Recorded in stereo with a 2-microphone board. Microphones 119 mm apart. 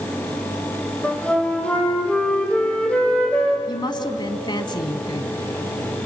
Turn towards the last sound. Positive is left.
turn(degrees=40)  # may be behind; listen again after turning